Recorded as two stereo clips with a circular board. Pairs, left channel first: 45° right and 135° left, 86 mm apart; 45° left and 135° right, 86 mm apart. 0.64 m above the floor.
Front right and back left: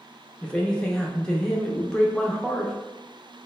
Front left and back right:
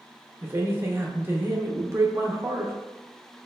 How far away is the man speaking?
About 0.6 m.